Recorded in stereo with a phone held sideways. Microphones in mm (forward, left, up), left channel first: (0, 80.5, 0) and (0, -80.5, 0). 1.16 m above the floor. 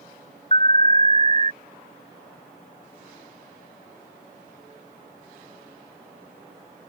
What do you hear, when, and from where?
0.5 s an alarm: 40° left (ahead or behind)